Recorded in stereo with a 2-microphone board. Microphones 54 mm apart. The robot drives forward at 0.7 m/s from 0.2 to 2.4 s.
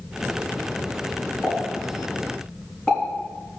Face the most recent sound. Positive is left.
turn(degrees=15)  # may be behind; listen again after turning